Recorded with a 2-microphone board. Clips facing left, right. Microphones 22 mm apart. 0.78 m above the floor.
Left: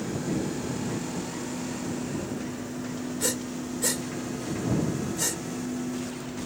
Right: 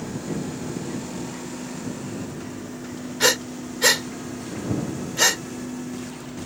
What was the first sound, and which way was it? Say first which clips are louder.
Breathing: right 12 dB; 60° right (ahead or behind).